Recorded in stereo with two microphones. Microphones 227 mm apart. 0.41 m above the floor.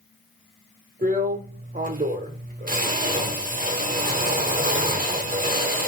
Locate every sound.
1.0 s a drill: 40° right (ahead or behind), 0.9 m